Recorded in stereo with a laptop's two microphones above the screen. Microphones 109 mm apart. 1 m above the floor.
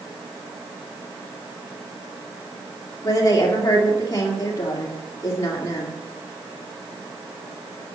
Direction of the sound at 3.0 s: 35° left (ahead or behind).